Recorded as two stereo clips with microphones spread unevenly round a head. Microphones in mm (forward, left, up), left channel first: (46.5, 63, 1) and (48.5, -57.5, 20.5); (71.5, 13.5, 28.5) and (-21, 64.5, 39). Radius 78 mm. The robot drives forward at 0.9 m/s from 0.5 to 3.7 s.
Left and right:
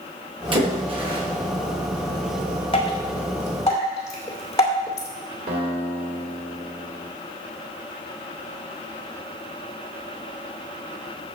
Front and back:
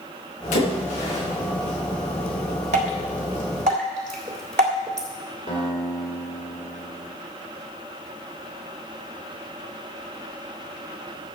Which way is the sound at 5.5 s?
95° right.